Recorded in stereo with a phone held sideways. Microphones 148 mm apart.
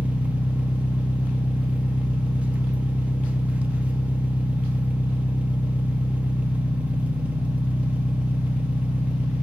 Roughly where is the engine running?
Centre.